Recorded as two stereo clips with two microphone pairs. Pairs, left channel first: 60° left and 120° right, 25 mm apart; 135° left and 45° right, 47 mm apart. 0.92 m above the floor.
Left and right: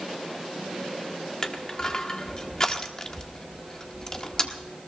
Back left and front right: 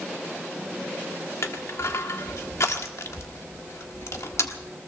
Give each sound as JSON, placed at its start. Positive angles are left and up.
{"t": 1.4, "sound": "crushing", "azimuth_deg": 125, "distance_m": 1.4}